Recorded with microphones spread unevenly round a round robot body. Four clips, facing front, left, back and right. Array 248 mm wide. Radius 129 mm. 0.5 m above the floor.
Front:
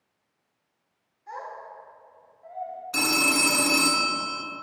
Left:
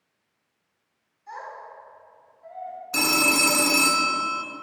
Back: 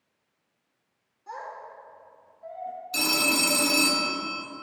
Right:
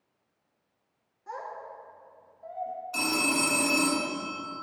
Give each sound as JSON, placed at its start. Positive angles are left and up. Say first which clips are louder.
{"t": 1.3, "sound": "a child speaking", "louder": "left 1 dB, front 1 dB", "azimuth_deg": -125, "distance_m": 3.5}
{"t": 2.9, "sound": "a phone ringing", "louder": "left 5 dB, front 2 dB", "azimuth_deg": 65, "distance_m": 1.0}